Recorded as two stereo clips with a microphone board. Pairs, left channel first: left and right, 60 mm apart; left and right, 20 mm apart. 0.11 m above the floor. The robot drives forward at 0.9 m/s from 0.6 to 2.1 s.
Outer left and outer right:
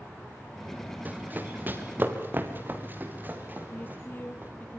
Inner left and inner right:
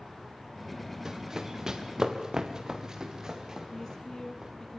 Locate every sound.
1.1 s running footsteps: 30° right (ahead or behind), 3 m
3.7 s a woman speaking: 35° left (ahead or behind), 2.5 m